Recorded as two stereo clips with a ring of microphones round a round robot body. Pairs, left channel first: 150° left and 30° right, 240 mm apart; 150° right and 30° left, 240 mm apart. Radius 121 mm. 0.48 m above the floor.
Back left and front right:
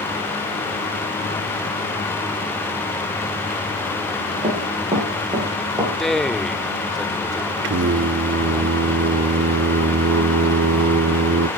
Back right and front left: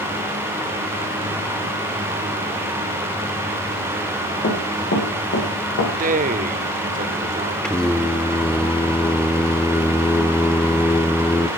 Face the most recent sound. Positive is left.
turn(degrees=-65)